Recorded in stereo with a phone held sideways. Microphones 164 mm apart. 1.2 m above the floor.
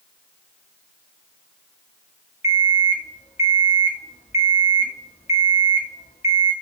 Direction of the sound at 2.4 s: 45° left (ahead or behind).